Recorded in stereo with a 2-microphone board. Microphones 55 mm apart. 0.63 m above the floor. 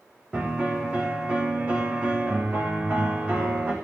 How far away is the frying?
I don't hear frying.